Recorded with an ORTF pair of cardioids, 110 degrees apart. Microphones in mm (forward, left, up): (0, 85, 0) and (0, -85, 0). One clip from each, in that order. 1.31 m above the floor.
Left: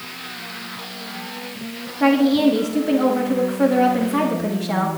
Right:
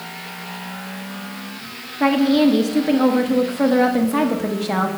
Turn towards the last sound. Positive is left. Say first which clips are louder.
# even
turn(degrees=-15)